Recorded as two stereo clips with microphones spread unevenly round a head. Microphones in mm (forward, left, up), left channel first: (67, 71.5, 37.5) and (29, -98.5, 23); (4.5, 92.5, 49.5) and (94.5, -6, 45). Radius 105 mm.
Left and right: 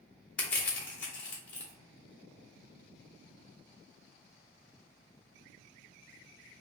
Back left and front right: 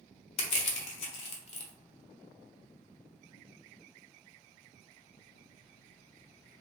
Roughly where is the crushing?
Behind.